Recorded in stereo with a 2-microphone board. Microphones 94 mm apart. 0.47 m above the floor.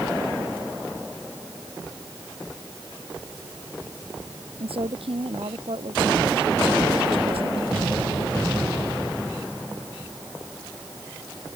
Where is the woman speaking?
85° right.